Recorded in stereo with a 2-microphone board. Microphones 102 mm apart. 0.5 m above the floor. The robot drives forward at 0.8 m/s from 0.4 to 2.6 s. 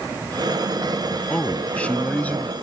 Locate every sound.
1.3 s a man speaking: 10° left (ahead or behind); by 2.5 s 15° left (ahead or behind)